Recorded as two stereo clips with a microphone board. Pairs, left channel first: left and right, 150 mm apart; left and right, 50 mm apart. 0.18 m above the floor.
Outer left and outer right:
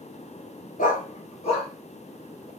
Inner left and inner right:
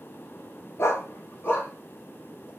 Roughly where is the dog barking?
Left.